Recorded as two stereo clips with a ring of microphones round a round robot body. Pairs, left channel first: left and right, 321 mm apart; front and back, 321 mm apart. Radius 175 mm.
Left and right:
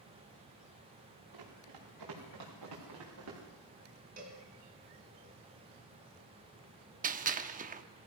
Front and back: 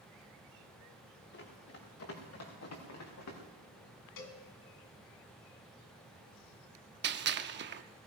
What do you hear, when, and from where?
1.3 s running footsteps: 55° right, 5 m; by 3.4 s 35° right, 4.5 m
4.2 s a cowbell: 20° right, 1.9 m
7.0 s a gunshot: 145° right, 0.7 m